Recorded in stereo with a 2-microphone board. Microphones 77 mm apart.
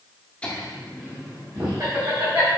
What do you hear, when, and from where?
0.4 s laughter: 15° left (ahead or behind), 0.8 m; by 2.5 s 60° right (ahead or behind), 1.6 m